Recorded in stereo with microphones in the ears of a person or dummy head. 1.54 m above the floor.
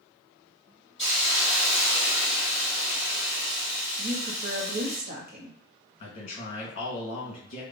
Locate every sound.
1.0 s a hiss: 5° right (ahead or behind), 0.9 m
4.0 s a woman speaking: 45° right (ahead or behind), 0.7 m
6.0 s a man speaking: 45° left (ahead or behind), 1.2 m